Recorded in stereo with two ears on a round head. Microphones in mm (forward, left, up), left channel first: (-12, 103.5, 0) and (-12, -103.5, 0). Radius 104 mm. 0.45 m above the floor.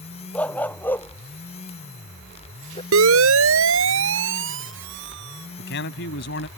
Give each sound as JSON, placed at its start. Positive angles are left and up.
{"t": 0.3, "sound": "a dog barking", "side_deg": 5}
{"t": 2.9, "sound": "a siren", "side_deg": -65}
{"t": 5.6, "sound": "a man speaking", "side_deg": 55}